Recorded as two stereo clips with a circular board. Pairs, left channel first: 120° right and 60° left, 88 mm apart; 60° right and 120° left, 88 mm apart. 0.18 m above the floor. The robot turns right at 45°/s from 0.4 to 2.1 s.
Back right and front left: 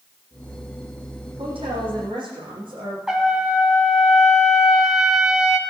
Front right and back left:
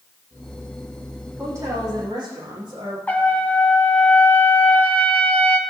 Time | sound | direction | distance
1.4 | a woman speaking | 55° left | 7.5 m
3.1 | a trumpet | 15° right | 1.6 m